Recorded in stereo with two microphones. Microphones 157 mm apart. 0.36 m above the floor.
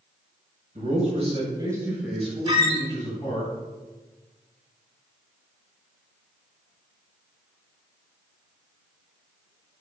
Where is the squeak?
35° right (ahead or behind), 0.8 m.